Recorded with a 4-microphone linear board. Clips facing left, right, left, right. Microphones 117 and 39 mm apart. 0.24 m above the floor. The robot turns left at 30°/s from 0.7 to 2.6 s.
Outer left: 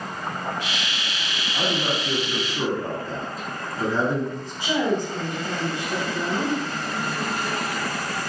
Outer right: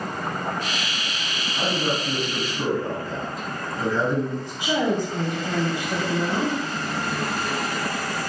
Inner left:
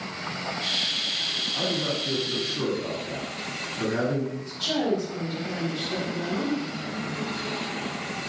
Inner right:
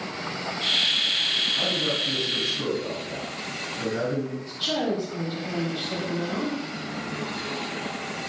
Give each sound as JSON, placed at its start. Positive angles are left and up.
{"t": 1.5, "sound": "a man speaking", "azimuth_deg": 90, "distance_m": 1.5}
{"t": 4.3, "sound": "a woman speaking", "side_deg": -20, "distance_m": 1.0}